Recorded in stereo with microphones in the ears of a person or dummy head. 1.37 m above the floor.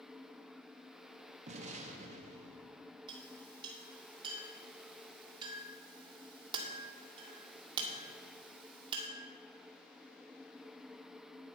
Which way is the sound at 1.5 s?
30° right (ahead or behind).